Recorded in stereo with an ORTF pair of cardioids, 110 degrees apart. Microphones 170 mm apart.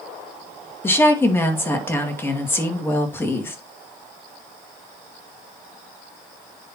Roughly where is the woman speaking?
Ahead.